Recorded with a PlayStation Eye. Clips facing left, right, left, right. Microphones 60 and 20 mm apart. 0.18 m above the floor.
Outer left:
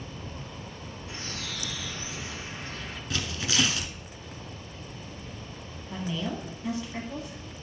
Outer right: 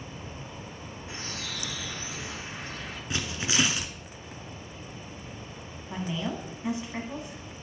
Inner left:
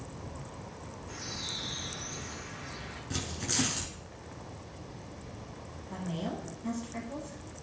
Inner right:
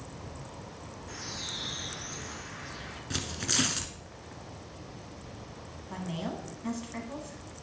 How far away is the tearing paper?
About 1.1 m.